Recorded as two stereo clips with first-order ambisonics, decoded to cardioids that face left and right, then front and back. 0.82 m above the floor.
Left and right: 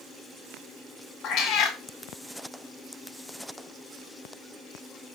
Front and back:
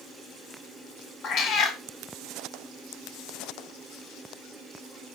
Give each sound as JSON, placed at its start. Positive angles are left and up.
{"t": 1.2, "sound": "a cat meowing", "azimuth_deg": 50, "distance_m": 0.6}